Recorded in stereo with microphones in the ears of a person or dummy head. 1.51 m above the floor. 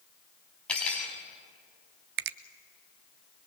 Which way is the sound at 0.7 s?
5° left (ahead or behind).